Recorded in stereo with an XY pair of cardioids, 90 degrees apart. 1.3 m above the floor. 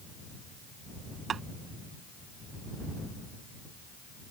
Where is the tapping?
55° right.